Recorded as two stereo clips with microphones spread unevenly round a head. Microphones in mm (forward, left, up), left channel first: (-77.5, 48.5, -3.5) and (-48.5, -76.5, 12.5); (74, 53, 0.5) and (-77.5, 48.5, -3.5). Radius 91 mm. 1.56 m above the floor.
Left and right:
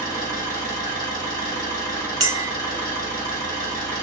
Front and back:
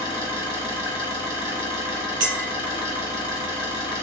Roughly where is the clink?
Behind right.